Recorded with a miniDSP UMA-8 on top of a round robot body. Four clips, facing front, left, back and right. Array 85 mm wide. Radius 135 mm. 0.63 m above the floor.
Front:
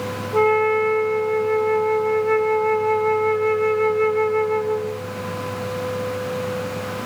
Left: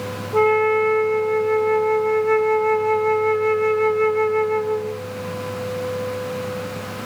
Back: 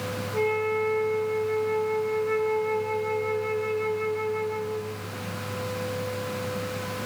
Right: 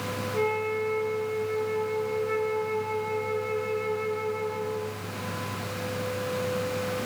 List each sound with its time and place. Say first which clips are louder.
0.3 s a flute: left 12 dB, front 9 dB; 55° left, 0.6 m